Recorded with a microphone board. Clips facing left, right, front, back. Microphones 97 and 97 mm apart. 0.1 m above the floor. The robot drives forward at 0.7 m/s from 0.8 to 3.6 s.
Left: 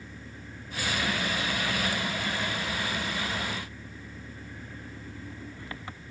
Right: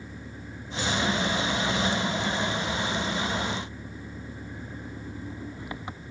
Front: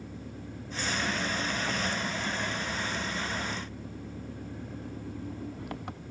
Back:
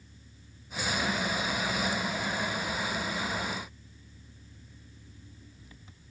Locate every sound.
0.0 s an engine running: 15° right; by 6.1 s 20° right